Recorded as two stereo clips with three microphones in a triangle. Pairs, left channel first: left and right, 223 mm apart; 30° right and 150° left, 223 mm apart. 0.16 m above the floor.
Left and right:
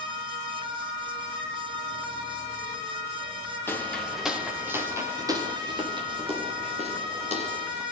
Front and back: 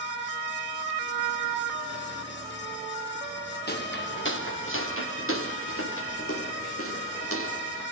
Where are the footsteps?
10° left, 3 m; by 7.8 s 30° right, 7.5 m.